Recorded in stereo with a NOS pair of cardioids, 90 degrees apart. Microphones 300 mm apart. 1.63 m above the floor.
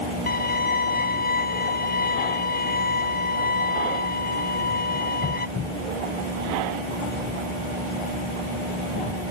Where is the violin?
30° left.